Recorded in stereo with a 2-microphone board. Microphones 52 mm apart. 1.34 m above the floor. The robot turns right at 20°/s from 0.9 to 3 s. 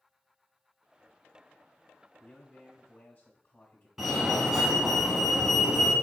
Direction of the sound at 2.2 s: 25° left (ahead or behind).